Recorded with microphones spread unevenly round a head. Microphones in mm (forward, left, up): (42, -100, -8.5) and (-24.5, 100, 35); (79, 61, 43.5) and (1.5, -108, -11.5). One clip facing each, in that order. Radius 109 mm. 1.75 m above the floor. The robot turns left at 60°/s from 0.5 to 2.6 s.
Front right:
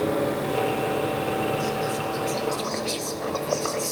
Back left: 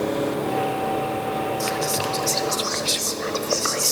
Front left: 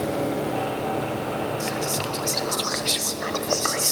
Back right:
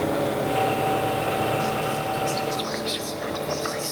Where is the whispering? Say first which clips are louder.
Back left 1 dB, back right 1 dB; 100° left, 0.7 m; by 3.9 s 40° left, 0.7 m.